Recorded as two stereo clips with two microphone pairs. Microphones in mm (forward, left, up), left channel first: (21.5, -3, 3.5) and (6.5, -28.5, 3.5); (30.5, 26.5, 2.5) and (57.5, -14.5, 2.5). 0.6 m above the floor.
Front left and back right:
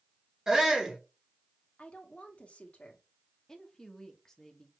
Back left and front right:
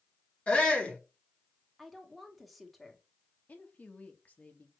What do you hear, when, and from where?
0.5 s a shout: straight behind, 1.6 m
1.8 s a woman speaking: 30° left, 1.3 m
3.5 s a woman speaking: 120° left, 1.1 m